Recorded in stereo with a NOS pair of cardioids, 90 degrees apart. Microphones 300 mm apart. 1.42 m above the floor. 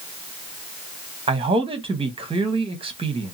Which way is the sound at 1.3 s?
15° right.